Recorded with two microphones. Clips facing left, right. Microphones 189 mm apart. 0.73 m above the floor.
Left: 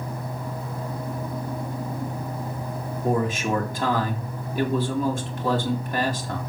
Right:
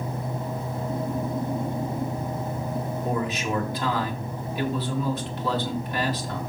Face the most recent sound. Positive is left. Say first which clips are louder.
# left 6 dB
turn(degrees=50)  # may be behind; listen again after turning